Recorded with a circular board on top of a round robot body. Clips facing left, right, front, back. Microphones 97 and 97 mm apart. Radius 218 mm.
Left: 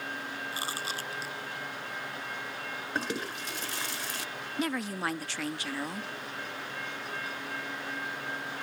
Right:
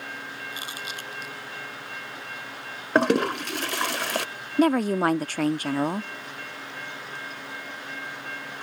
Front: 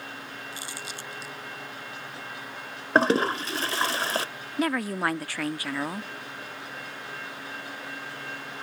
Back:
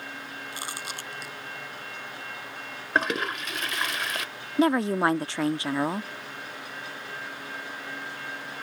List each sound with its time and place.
0.5 s chewing: 145° left
3.0 s a toilet flushing: 60° right
4.6 s a woman speaking: 120° right